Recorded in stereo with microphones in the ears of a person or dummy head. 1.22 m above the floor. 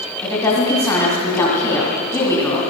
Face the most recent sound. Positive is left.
turn(degrees=20)  # may be behind; listen again after turning